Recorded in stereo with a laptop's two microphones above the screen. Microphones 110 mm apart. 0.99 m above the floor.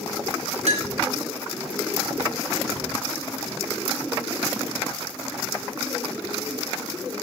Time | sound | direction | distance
0.7 | a clink | 90° right | 3.5 m